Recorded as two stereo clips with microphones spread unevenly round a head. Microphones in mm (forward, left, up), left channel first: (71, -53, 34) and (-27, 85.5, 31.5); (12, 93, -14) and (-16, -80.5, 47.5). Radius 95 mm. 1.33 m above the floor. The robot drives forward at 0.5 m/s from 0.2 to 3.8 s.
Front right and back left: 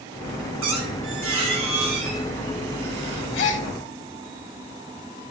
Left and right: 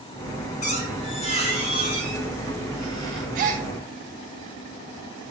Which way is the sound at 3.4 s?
55° right.